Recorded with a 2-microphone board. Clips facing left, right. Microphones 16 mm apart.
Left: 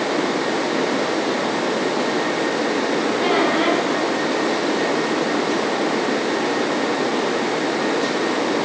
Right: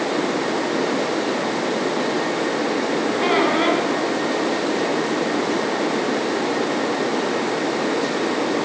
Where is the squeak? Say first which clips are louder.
Right 1 dB; 35° right (ahead or behind), 9.5 m.